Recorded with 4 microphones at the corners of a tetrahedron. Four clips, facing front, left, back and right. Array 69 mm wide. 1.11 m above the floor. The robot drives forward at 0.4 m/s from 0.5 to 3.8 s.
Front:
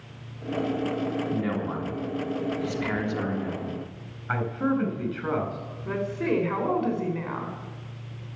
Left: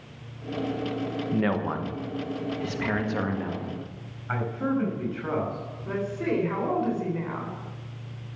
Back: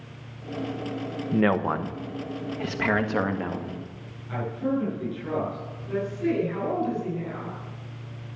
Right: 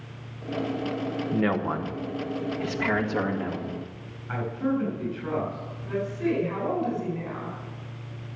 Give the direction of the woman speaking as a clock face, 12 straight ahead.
11 o'clock.